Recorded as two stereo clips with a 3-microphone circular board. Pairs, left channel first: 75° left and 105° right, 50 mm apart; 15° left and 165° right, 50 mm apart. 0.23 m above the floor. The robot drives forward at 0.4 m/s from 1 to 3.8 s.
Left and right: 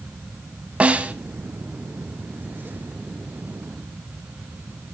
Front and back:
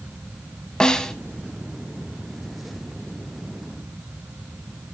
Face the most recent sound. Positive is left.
turn(degrees=-155)